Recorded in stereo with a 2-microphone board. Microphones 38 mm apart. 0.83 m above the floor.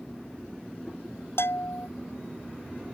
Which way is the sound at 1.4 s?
85° left.